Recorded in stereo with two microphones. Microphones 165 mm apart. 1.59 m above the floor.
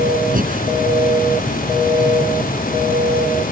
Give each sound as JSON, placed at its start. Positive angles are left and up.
{"t": 0.3, "sound": "breathing", "side_deg": -60}